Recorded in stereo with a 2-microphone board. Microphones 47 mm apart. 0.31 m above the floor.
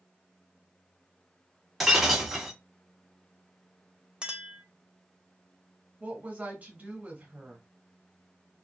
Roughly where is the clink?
Centre.